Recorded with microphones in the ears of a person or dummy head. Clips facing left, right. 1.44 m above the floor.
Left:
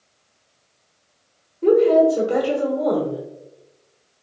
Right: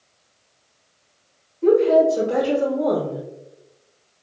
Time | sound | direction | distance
1.6 | a woman speaking | 10° left (ahead or behind) | 1.2 m